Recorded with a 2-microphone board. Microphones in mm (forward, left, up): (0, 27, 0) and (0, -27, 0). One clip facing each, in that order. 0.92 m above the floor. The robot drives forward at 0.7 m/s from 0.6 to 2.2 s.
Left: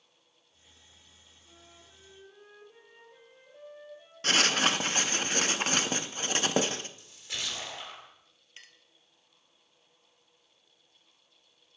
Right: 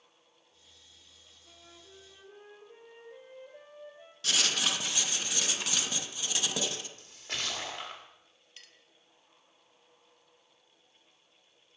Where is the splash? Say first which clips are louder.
Right 1 dB; 55° right (ahead or behind), 2 m.